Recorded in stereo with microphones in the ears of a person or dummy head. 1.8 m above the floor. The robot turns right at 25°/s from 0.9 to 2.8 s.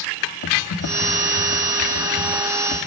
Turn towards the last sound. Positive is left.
turn(degrees=140)